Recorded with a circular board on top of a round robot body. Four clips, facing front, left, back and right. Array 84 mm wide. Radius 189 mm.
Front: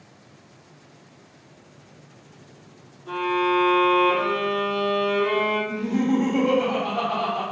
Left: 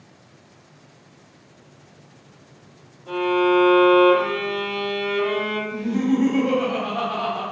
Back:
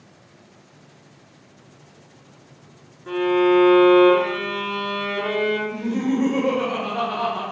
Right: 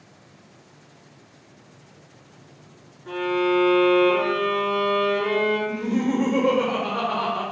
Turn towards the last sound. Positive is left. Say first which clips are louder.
# left 2 dB, even
turn(degrees=-115)